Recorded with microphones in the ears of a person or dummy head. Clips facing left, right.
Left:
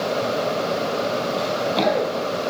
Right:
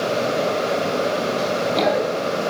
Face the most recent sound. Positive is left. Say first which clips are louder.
# right 1 dB
turn(degrees=-5)  # may be behind; listen again after turning